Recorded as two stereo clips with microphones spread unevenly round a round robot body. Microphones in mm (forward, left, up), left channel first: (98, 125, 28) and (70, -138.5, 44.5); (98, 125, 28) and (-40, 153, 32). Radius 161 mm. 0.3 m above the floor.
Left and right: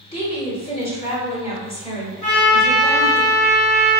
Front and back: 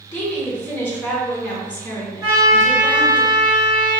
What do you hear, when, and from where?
0.1 s a woman speaking: 50° left, 1.1 m
2.2 s a trumpet: 140° left, 1.7 m